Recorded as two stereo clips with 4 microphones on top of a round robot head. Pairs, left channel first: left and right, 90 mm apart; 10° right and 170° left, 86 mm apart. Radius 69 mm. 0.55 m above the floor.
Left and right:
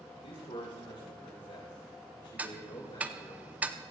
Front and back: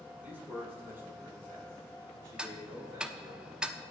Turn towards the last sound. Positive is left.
turn(degrees=-130)